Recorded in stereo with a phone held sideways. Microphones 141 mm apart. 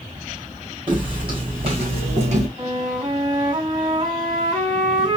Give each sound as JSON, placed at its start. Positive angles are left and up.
{"t": 0.9, "sound": "footsteps", "side_deg": -35, "distance_m": 3.0}
{"t": 2.6, "sound": "a flute", "side_deg": -30, "distance_m": 2.0}